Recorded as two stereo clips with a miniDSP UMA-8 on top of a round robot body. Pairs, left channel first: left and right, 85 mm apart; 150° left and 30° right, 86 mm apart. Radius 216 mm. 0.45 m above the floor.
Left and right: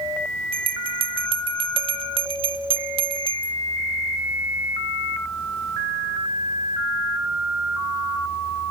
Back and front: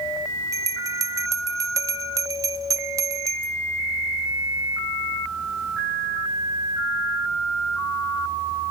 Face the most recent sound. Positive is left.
turn(degrees=-85)